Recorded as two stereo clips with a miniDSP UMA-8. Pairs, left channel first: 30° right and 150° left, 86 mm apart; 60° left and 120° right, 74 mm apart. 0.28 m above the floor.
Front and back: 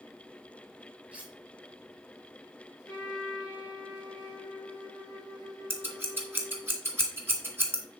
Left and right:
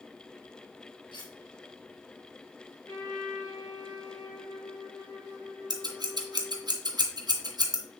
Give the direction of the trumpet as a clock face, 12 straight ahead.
11 o'clock.